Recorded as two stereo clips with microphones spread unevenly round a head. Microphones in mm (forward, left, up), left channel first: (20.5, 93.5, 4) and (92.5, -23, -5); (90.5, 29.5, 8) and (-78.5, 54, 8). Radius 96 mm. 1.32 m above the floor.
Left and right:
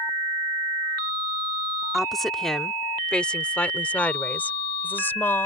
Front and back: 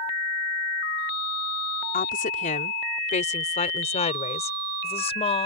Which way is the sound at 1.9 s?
35° left.